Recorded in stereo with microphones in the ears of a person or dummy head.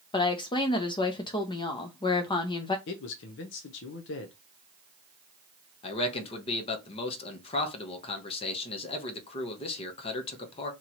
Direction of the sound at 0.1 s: 20° left (ahead or behind).